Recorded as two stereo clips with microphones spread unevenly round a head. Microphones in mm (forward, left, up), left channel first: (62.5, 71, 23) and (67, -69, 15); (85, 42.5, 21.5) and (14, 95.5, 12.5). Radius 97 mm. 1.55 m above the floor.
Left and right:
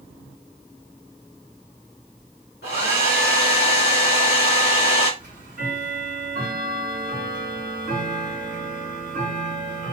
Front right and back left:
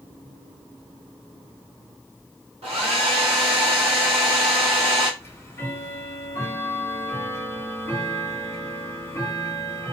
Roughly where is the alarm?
I don't hear an alarm.